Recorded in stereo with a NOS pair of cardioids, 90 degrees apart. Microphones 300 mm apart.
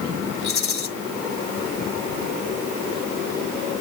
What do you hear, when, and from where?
0.4 s a rattle: 50° left, 2.5 m